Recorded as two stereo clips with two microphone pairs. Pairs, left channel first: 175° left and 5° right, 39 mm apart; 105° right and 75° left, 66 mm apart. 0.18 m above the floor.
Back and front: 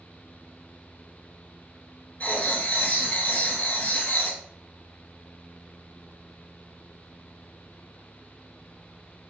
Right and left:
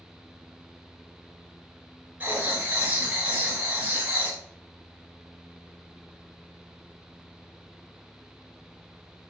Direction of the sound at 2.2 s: 130° left.